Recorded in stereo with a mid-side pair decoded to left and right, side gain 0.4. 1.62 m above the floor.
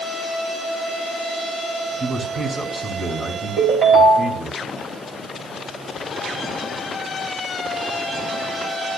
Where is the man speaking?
25° right, 2.5 m.